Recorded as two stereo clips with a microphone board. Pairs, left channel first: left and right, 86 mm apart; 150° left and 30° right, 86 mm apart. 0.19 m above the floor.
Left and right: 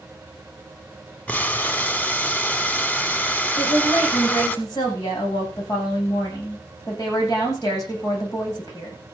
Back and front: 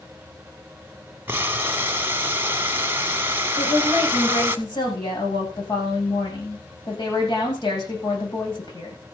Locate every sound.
1.3 s boiling: 25° left, 0.9 m
3.6 s a woman speaking: 135° left, 8.5 m